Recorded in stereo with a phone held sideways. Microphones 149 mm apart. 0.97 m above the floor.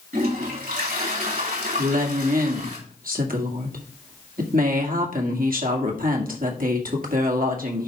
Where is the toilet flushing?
75° right (ahead or behind), 3 m.